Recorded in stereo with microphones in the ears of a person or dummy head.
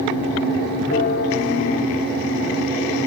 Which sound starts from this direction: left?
A bell, at 0.9 s.